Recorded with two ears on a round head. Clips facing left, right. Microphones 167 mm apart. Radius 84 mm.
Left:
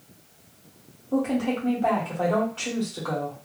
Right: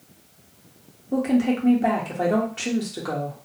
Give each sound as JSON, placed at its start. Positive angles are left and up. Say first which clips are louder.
{"t": 1.1, "sound": "a woman speaking", "louder": "right 4 dB", "side_deg": -20, "distance_m": 1.0}